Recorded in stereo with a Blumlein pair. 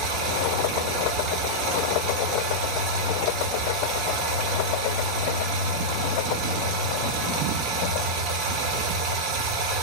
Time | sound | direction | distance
0.0 | running water | 40° right | 0.9 m